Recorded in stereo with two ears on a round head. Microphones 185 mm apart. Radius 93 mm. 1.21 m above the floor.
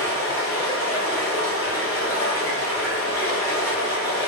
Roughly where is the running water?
Centre.